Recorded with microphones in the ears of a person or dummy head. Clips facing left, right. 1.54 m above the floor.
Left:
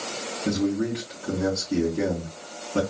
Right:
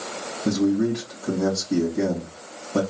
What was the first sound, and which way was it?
A man speaking, 80° right.